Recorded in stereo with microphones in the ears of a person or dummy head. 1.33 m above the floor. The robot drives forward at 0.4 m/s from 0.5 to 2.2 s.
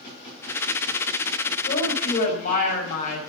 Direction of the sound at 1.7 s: 60° left (ahead or behind).